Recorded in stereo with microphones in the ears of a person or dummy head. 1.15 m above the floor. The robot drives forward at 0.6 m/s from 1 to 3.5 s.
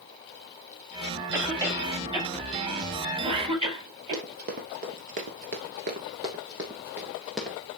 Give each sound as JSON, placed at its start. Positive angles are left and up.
{"t": 1.3, "sound": "a cough", "side_deg": -20, "distance_m": 5.0}
{"t": 4.1, "sound": "running footsteps", "side_deg": -45, "distance_m": 2.0}